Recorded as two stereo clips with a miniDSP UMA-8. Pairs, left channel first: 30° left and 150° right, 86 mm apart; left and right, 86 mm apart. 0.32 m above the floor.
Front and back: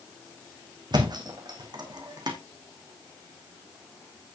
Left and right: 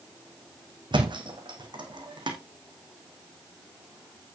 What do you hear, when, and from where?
0.9 s a thud: 115° right, 2.5 m